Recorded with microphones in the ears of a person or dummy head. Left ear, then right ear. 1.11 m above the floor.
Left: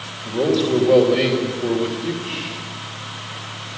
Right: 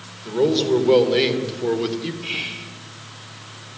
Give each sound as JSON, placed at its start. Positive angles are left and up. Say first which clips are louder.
{"t": 0.2, "sound": "a man speaking", "louder": "even", "side_deg": -40, "distance_m": 3.0}
{"t": 2.2, "sound": "whispering", "louder": "right 1 dB", "side_deg": -50, "distance_m": 1.8}